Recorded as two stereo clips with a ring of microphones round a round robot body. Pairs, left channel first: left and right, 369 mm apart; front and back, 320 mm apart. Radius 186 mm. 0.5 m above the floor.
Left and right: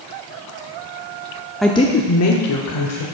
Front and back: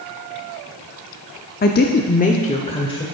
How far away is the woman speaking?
About 0.8 m.